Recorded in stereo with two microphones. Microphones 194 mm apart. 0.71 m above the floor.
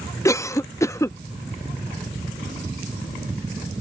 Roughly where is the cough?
Centre.